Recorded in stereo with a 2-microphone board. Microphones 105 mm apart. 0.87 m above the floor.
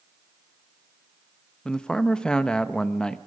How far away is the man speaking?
About 0.8 m.